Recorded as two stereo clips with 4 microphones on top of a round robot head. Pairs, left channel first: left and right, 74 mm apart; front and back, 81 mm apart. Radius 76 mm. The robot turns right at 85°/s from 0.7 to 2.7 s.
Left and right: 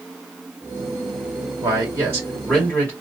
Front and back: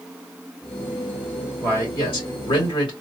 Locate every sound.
1.6 s a man speaking: 70° right, 1.8 m; by 2.9 s 20° left, 1.8 m